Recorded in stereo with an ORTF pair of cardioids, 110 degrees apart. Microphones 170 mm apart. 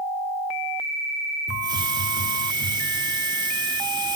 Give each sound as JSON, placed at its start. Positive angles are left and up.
{"t": 1.5, "sound": "a hiss", "azimuth_deg": -25, "distance_m": 3.5}